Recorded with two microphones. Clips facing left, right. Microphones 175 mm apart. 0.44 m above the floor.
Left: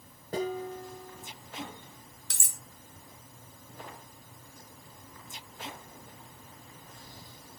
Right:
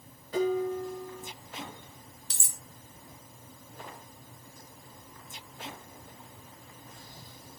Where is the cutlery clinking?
65° left (ahead or behind), 0.6 m.